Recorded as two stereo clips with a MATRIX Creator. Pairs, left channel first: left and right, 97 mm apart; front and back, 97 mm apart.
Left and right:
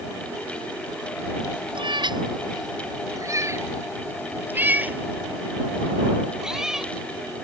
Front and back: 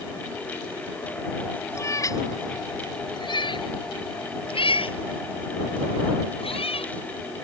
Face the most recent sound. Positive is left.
turn(degrees=-5)